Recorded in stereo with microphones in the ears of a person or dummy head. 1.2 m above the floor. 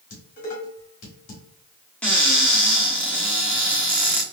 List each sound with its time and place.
0.1 s dishes clattering: 45° left (ahead or behind), 1.6 m
2.0 s a cupboard door: centre (ahead or behind), 0.9 m